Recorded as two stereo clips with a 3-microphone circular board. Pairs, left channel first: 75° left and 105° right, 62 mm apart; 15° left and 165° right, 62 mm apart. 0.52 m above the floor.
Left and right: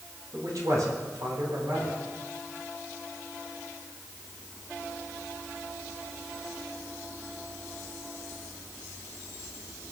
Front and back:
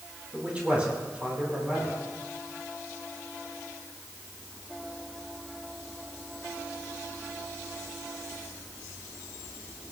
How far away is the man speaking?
About 4 m.